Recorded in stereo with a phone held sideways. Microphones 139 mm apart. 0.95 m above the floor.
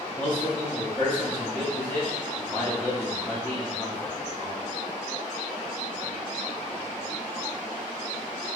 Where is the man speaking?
10° left (ahead or behind), 1.3 m.